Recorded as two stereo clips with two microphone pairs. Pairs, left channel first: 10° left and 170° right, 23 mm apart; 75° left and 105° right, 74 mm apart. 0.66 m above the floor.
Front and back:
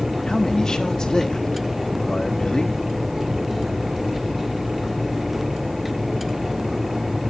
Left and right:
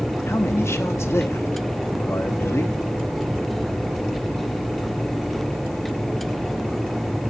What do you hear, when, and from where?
0.3 s a man speaking: 55° left, 1.1 m